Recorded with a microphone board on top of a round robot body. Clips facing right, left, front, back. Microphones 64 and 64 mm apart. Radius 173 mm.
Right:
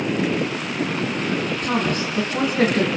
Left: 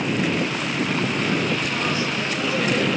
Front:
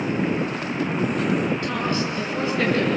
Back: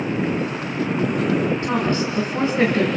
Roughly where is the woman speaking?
Behind right.